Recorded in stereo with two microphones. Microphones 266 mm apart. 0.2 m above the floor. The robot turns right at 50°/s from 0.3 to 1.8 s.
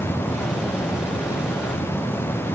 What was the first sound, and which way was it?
Only background noise.